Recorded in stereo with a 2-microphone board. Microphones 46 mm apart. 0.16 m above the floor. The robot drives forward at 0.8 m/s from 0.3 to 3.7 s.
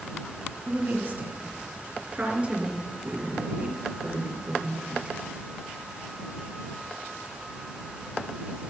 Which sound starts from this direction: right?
A woman speaking, at 0.7 s.